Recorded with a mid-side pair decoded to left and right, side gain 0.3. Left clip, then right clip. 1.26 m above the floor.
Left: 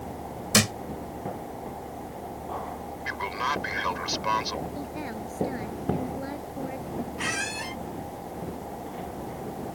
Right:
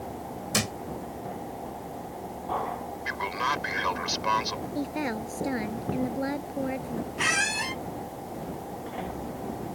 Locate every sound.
0.5 s a thud: 65° left
3.0 s a man speaking: 5° right
4.8 s a woman speaking: 60° right
7.2 s a squeak: 55° right